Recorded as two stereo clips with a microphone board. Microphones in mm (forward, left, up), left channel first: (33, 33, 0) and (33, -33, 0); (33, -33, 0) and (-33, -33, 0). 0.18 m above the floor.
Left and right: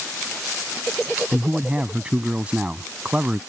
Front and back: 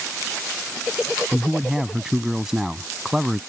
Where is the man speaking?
115° right.